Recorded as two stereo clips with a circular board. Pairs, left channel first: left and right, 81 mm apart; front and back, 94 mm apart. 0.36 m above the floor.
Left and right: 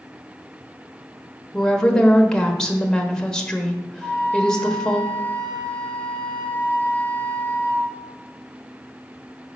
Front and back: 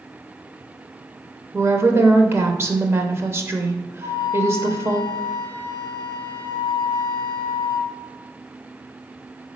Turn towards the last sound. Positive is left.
turn(degrees=-155)